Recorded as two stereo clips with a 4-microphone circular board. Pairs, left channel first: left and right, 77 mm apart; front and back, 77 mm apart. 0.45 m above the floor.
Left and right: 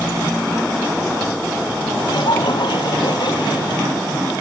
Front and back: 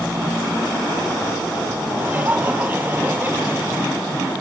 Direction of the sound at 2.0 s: 110° left.